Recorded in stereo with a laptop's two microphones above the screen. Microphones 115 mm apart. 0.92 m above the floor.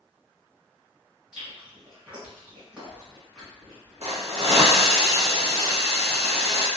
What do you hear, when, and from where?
1.3 s chewing: 5° right (ahead or behind), 1.5 m
4.0 s a hiss: 65° right (ahead or behind), 0.9 m